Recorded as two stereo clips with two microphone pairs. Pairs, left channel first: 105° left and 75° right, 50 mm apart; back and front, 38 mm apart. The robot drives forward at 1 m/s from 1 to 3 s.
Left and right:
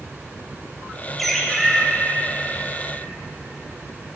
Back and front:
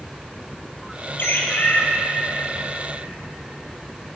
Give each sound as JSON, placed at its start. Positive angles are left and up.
{"t": 1.2, "sound": "a bird", "azimuth_deg": -170, "distance_m": 1.1}